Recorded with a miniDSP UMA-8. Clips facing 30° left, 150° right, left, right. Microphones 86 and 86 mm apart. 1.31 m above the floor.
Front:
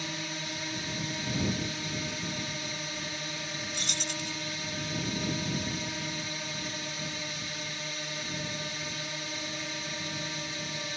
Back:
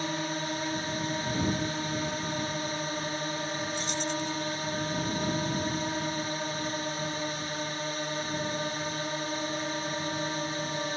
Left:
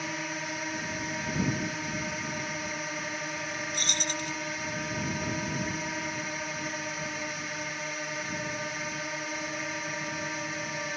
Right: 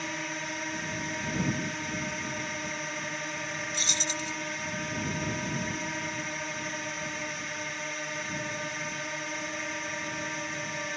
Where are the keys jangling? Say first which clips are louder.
Back 6 dB, left 1 dB; 45° left.